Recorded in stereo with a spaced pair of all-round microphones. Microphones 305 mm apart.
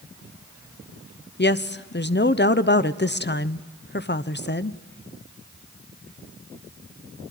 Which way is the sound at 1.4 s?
35° left (ahead or behind).